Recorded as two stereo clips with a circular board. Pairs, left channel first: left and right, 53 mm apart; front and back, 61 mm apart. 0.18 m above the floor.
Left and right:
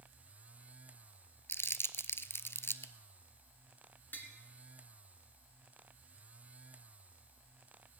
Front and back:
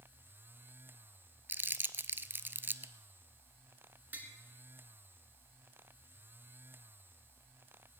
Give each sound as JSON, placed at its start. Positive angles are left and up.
{"t": 1.5, "sound": "crumpling", "azimuth_deg": 125, "distance_m": 0.7}
{"t": 4.1, "sound": "tapping", "azimuth_deg": 130, "distance_m": 2.0}